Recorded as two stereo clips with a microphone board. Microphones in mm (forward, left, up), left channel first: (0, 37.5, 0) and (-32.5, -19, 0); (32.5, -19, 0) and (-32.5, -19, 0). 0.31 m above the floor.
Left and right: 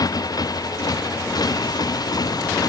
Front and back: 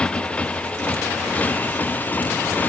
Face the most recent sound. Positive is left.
turn(degrees=60)